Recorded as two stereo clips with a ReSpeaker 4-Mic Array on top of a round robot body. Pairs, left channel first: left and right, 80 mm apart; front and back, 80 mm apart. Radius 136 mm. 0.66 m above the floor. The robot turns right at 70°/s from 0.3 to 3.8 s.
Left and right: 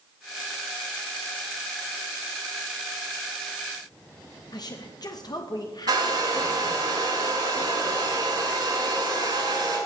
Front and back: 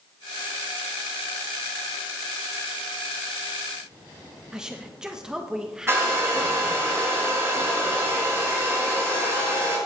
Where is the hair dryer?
125° right, 6.5 m.